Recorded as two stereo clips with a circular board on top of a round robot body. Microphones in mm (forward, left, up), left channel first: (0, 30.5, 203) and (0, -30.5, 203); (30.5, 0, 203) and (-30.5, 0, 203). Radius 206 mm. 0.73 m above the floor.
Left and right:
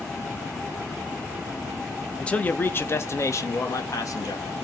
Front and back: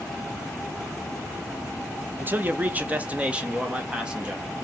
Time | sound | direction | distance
2.2 | a man speaking | 155° left | 1.1 m